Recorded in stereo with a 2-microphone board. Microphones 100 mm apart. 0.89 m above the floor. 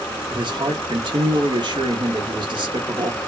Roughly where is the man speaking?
Right.